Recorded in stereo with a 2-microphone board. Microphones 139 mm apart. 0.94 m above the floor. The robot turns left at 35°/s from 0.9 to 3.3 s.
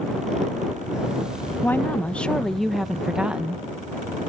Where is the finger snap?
No finger snap in this recording.